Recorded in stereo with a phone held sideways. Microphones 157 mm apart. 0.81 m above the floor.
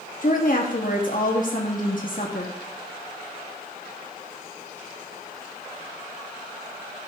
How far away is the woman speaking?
About 1.4 m.